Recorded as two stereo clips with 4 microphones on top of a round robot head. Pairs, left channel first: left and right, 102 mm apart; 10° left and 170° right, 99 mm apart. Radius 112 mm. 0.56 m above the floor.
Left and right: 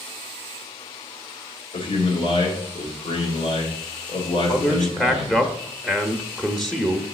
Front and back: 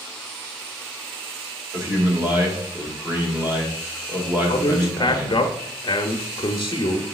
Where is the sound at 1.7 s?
120° left, 2 m.